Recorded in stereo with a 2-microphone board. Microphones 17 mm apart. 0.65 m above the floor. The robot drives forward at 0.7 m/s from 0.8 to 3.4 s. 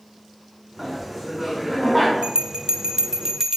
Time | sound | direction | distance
0.8 | laughter | 10° right (ahead or behind) | 6.5 m
2.2 | a bell | 75° right (ahead or behind) | 0.7 m